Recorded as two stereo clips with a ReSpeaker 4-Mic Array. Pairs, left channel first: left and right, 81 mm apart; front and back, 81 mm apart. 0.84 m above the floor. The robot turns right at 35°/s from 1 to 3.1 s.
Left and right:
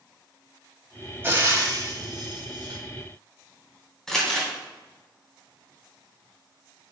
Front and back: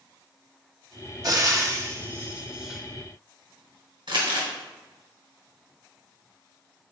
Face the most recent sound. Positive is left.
turn(degrees=170)